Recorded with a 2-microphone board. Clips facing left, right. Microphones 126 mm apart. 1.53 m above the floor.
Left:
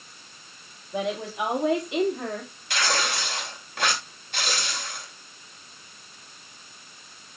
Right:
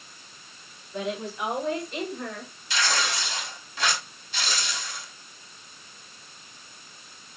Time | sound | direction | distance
0.9 | a woman speaking | 75° left (ahead or behind) | 3.5 m
2.7 | tearing paper | 60° left (ahead or behind) | 2.5 m